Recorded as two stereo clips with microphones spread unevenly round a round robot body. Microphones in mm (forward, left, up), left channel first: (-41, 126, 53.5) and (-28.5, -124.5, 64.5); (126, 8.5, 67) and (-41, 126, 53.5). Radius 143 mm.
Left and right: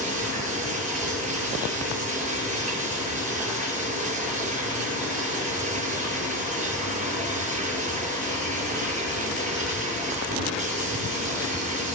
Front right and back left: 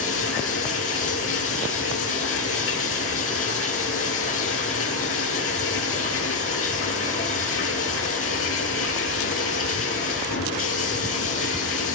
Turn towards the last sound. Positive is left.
turn(degrees=-25)